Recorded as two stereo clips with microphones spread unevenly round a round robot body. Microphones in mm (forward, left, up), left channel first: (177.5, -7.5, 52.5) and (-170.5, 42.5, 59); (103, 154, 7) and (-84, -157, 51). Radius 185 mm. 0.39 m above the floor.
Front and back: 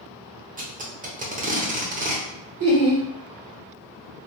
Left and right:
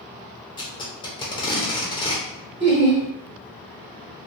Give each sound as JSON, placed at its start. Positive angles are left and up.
{"t": 0.6, "sound": "tape being pulled", "azimuth_deg": 115, "distance_m": 0.8}
{"t": 2.6, "sound": "laughter", "azimuth_deg": 180, "distance_m": 1.6}